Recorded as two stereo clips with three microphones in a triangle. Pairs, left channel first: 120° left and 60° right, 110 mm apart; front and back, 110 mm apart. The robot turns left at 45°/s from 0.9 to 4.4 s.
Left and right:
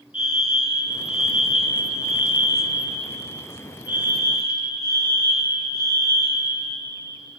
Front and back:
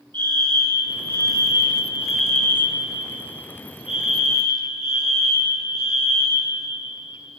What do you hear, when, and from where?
0.1 s a fire alarm: 145° left, 4 m; by 6.5 s 10° right, 4 m